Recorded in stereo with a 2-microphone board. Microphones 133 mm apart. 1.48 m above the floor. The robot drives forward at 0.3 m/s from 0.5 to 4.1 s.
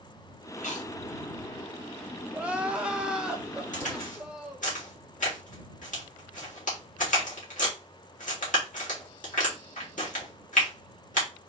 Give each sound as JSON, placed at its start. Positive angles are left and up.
{"t": 0.6, "sound": "chewing", "side_deg": 70, "distance_m": 1.2}
{"t": 2.3, "sound": "crying", "side_deg": -10, "distance_m": 0.6}
{"t": 3.7, "sound": "a crack", "side_deg": 70, "distance_m": 2.0}